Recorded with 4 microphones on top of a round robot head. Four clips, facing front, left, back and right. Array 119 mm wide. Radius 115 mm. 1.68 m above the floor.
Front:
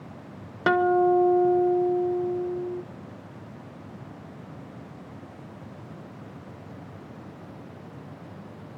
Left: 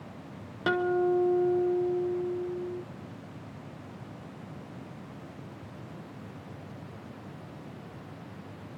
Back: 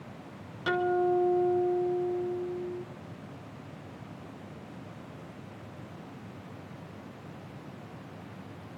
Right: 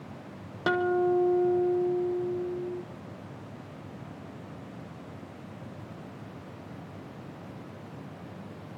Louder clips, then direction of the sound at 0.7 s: Right 1 dB, front 7 dB; 5° right.